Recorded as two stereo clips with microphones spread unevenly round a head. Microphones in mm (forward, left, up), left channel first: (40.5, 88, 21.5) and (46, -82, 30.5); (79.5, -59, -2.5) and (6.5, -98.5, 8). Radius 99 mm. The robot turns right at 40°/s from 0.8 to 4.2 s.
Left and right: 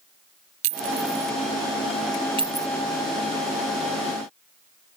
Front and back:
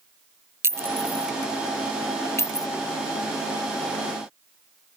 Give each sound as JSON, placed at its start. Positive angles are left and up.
{"t": 0.6, "sound": "a clink", "azimuth_deg": -90}